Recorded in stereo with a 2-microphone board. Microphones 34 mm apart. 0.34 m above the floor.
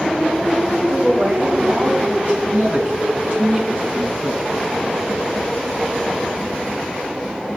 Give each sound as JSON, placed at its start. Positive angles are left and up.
{"t": 0.9, "sound": "a woman speaking", "side_deg": -40, "distance_m": 3.5}
{"t": 2.5, "sound": "a man speaking", "side_deg": -30, "distance_m": 3.0}